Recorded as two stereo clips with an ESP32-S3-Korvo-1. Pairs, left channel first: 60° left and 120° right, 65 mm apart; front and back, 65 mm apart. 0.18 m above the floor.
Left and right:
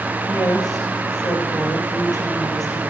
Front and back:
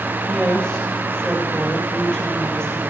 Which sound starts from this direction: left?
A woman speaking, at 0.3 s.